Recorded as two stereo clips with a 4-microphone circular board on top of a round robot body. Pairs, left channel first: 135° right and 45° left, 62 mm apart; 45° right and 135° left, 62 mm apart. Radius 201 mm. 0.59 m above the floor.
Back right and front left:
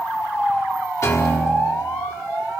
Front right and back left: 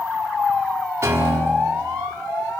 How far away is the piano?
About 4.5 m.